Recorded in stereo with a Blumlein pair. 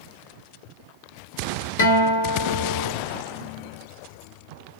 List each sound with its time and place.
1.8 s a guitar: 55° left, 0.6 m